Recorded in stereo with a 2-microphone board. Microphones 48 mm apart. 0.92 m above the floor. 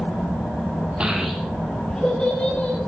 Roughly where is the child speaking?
Right.